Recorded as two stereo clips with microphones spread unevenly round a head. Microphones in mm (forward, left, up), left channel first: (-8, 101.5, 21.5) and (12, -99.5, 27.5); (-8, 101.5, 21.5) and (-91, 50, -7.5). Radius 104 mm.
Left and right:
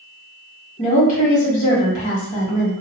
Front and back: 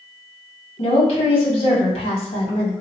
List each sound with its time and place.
0.8 s a woman speaking: 40° left, 1.8 m